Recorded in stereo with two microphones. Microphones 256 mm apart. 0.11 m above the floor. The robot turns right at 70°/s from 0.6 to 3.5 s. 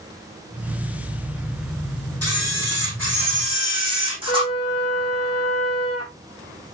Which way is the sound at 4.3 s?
65° left (ahead or behind).